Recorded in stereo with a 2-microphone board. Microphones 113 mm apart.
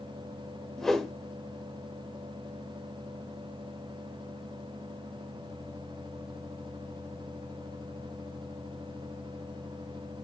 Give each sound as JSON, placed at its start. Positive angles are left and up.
{"t": 0.8, "sound": "a whoosh", "side_deg": 0, "distance_m": 1.3}